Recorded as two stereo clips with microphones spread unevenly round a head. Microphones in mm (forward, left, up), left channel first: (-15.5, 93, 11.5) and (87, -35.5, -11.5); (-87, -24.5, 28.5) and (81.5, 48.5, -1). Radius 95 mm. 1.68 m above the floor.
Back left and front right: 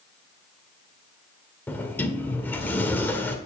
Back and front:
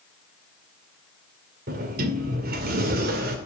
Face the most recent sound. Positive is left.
turn(degrees=60)